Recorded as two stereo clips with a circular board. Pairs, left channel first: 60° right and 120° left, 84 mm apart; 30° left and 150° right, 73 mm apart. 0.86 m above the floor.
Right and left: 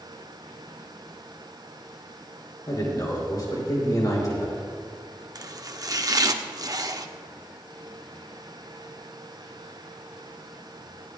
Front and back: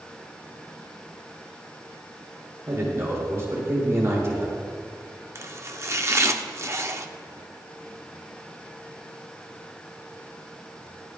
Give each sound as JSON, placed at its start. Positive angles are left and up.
{"t": 2.7, "sound": "a man speaking", "azimuth_deg": -100, "distance_m": 3.5}
{"t": 5.3, "sound": "chopping", "azimuth_deg": 160, "distance_m": 0.7}